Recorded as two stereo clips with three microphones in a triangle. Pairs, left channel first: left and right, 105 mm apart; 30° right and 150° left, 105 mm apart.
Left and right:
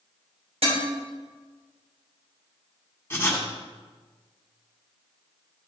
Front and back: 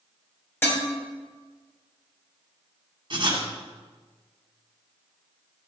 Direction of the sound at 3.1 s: 145° left.